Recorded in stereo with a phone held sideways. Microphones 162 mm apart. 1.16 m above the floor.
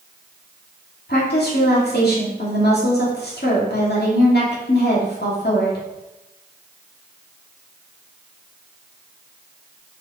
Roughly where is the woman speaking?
Left.